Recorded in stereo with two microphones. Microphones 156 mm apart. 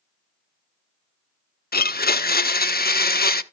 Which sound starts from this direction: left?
A blender, at 1.7 s.